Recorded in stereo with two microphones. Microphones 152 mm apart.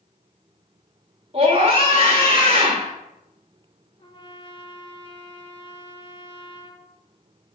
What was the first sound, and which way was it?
A scream, 40° right (ahead or behind).